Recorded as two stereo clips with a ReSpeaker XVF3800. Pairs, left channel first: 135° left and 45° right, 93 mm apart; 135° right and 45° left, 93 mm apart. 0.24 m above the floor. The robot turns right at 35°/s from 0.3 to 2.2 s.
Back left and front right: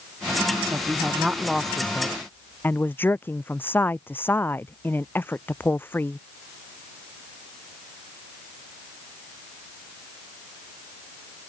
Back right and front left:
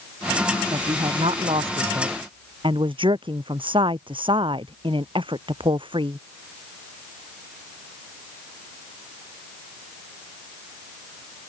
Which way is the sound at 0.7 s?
15° left.